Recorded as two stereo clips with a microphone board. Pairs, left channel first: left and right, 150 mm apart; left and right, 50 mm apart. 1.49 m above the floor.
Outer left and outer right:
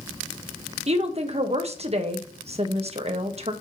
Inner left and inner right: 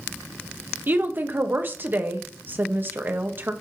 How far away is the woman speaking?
About 1.3 m.